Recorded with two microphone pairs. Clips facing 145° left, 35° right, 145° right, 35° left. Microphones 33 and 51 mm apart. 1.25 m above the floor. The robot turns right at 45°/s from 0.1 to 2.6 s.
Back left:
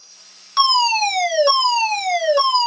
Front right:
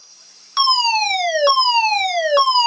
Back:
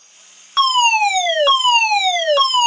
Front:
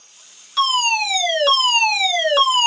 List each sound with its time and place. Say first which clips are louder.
0.6 s a fire alarm: back left 1 dB, back 5 dB; 120° right, 2 m; by 2.7 s 25° right, 2 m